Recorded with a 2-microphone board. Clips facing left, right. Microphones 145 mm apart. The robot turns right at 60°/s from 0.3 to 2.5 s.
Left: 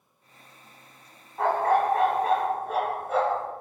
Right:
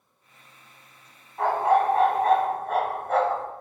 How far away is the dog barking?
About 1.6 m.